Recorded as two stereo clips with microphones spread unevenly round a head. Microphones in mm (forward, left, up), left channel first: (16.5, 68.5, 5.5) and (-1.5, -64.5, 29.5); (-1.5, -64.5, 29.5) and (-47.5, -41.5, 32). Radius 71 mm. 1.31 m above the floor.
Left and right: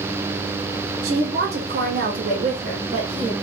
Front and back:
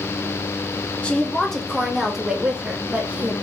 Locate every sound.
1.0 s a woman speaking: 95° right, 1.3 m; by 3.3 s 150° right, 1.5 m